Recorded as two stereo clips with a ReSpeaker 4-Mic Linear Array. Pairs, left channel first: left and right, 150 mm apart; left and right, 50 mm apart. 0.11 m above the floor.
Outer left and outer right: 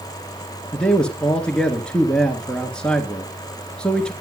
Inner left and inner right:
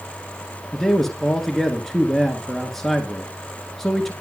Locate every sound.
0.7 s a man speaking: 5° left (ahead or behind), 1.4 m